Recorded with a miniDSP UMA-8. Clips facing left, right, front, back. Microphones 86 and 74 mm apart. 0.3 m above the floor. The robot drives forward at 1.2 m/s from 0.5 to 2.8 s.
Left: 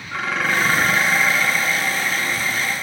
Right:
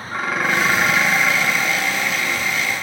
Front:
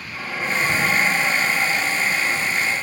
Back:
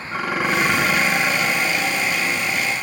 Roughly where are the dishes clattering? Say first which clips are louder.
Right 1 dB, back 4 dB; behind.